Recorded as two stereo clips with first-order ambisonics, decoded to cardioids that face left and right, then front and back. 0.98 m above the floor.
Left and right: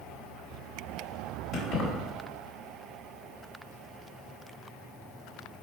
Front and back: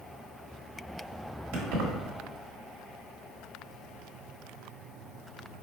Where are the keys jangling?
165° left, 1.3 m.